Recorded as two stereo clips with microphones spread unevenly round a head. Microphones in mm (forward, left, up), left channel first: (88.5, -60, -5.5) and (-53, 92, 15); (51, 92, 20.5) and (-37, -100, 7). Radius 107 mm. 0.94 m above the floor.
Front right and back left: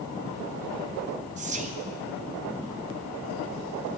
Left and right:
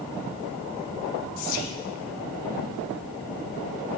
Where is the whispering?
75° left, 0.9 m.